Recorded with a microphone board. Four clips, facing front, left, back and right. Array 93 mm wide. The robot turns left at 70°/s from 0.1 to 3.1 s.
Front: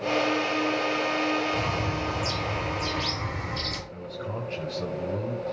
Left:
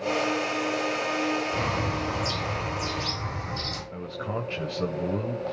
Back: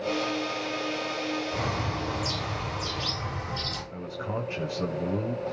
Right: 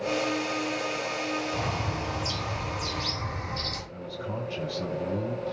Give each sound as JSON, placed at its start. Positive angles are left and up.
{"t": 1.5, "sound": "a bird", "azimuth_deg": 115, "distance_m": 7.0}
{"t": 3.9, "sound": "a man speaking", "azimuth_deg": 110, "distance_m": 1.1}